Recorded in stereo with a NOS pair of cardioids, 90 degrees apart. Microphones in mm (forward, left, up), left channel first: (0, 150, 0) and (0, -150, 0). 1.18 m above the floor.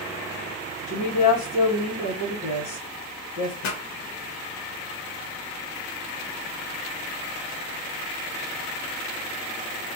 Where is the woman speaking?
70° left, 1.1 m.